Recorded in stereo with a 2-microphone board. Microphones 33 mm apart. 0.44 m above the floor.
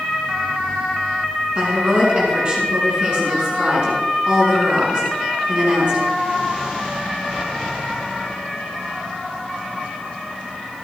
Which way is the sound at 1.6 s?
25° right (ahead or behind).